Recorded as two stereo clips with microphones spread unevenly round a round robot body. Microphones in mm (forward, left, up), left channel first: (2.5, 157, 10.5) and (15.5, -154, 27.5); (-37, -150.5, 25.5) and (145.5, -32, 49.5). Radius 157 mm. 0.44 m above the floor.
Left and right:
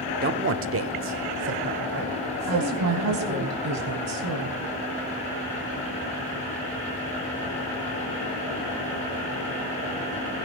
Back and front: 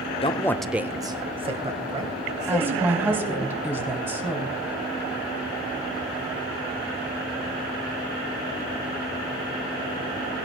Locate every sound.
0.2 s a man speaking: 125° right, 0.8 m; by 3.5 s 25° right, 4 m
2.5 s a woman speaking: 50° right, 3 m